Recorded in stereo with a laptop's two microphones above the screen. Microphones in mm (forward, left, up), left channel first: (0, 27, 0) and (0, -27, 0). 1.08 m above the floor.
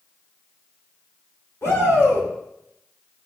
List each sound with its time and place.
1.6 s a shout: 50° left (ahead or behind), 5 m